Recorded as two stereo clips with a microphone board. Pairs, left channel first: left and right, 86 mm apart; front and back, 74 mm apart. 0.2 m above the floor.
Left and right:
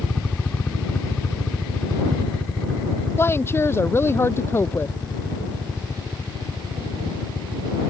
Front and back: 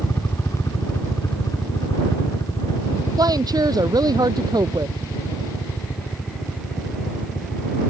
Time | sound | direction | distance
0.0 | a helicopter | 20° left | ?
3.2 | a woman speaking | 150° left | ?